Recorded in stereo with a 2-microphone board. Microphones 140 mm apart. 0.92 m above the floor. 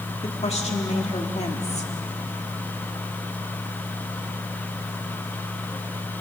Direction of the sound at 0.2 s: 50° left (ahead or behind).